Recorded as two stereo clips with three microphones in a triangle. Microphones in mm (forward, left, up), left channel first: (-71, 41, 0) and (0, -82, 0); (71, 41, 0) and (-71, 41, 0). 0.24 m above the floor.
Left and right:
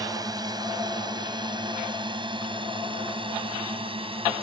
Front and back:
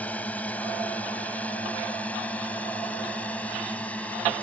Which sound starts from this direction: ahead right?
A drone, at 0.0 s.